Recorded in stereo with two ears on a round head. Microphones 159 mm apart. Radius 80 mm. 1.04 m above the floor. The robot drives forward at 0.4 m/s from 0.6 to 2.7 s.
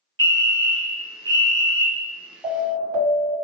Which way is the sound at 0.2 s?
25° right (ahead or behind).